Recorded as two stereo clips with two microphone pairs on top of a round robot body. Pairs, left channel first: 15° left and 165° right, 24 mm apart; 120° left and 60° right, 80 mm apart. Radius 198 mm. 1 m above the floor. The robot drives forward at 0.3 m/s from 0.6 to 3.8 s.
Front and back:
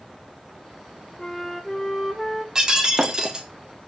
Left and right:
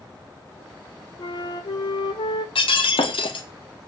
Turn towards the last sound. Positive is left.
turn(degrees=135)